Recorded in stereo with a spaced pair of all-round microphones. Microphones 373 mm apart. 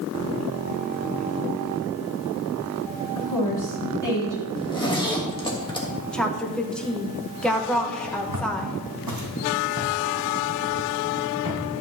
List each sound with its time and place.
3.1 s a woman speaking: 55° left (ahead or behind), 2.5 m
4.6 s a zipper: 10° left (ahead or behind), 1.4 m
6.1 s a woman speaking: centre (ahead or behind), 1.1 m
8.3 s footsteps: 65° right (ahead or behind), 2.5 m; by 11.6 s 45° right (ahead or behind), 5 m